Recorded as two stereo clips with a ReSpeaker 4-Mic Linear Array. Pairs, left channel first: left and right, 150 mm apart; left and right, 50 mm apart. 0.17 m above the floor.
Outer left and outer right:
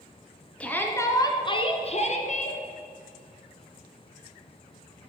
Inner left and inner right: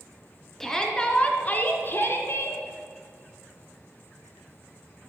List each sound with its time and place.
0.6 s a shout: 10° left (ahead or behind), 2 m; by 2.6 s 60° left (ahead or behind), 2.5 m